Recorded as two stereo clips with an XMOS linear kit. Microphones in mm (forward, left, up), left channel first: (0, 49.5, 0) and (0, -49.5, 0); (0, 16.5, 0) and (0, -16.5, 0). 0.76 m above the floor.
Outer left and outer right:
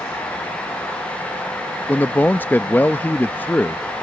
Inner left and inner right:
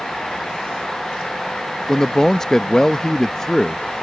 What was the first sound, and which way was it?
A man speaking, 15° left (ahead or behind).